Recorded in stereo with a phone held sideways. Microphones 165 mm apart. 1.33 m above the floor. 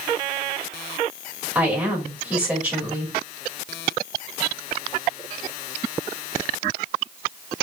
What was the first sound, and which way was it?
A woman speaking, 10° right (ahead or behind).